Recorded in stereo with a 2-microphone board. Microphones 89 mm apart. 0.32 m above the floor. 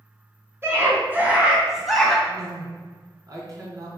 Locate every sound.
0.6 s a scream: 30° right (ahead or behind), 3.5 m; by 2.2 s 5° left (ahead or behind), 3 m
2.3 s a woman speaking: 45° right (ahead or behind), 3.5 m